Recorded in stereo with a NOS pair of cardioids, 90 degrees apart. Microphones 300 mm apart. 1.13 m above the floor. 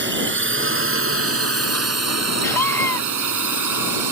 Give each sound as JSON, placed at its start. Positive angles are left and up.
{"t": 0.0, "sound": "a drone", "azimuth_deg": -35}
{"t": 2.4, "sound": "a scream", "azimuth_deg": 10}